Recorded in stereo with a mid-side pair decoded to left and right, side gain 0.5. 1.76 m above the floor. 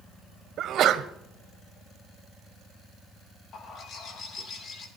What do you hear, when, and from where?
0.6 s a sneeze: 60° right, 1.4 m
3.5 s a bird: 55° left, 3 m